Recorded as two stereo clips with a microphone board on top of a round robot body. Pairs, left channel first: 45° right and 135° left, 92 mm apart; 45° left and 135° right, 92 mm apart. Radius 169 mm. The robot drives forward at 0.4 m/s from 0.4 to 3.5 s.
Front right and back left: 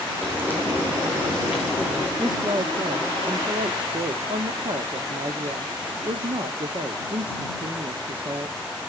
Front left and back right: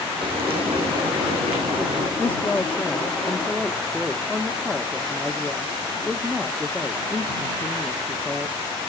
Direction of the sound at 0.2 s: 155° right.